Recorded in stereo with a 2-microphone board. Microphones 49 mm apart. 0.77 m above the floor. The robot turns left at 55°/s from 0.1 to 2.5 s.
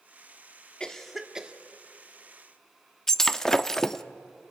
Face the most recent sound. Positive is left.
turn(degrees=10)  # may be behind; listen again after turning